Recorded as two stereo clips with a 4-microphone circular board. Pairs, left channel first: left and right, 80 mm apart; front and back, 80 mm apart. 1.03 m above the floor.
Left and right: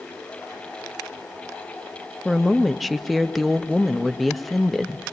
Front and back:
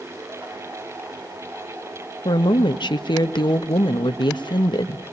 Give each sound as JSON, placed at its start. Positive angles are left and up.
{"t": 2.2, "sound": "a woman speaking", "azimuth_deg": 0, "distance_m": 1.3}